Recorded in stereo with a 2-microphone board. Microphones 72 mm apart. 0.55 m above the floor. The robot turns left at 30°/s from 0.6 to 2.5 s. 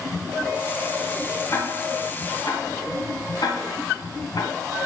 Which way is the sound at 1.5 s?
40° left (ahead or behind).